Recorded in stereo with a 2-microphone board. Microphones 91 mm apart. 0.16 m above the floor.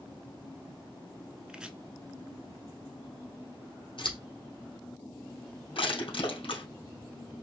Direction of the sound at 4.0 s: 65° left (ahead or behind).